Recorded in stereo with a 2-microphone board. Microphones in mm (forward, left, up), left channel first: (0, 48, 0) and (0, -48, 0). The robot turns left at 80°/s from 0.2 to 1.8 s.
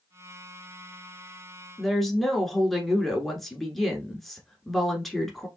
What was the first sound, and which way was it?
A woman speaking, centre (ahead or behind).